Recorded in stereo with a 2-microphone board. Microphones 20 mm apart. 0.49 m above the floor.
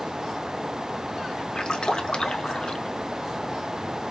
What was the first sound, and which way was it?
A splash, 35° left (ahead or behind).